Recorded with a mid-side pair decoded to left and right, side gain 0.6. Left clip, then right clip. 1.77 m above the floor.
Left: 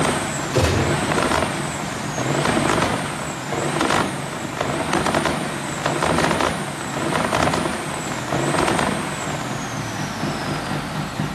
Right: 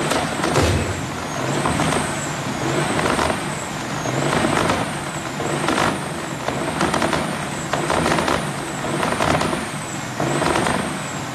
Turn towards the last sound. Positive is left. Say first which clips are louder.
# even
turn(degrees=15)